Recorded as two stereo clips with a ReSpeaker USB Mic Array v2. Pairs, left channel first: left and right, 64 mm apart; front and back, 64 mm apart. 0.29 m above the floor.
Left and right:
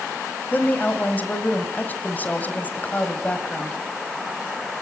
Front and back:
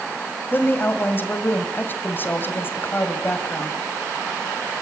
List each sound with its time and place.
0.5 s a woman speaking: 40° left, 2 m